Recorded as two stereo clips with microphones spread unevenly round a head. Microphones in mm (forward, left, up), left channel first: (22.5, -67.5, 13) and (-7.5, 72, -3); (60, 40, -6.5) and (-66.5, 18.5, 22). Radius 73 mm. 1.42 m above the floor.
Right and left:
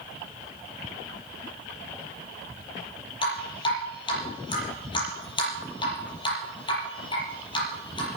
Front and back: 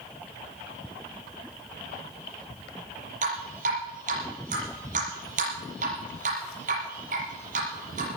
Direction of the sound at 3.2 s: 135° right.